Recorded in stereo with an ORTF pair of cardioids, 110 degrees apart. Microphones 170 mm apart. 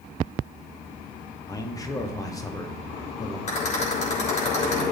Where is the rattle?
40° left, 6 m.